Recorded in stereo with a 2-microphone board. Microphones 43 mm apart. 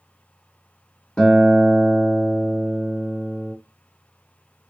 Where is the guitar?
15° left (ahead or behind), 0.7 m.